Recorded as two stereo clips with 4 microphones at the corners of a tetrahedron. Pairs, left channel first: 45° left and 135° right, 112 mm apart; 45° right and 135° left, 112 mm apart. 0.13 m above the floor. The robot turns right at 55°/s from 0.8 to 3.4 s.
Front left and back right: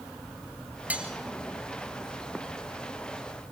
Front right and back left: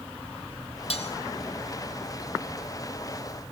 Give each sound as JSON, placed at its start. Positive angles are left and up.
{"t": 0.9, "sound": "cutlery clinking", "azimuth_deg": -60, "distance_m": 2.0}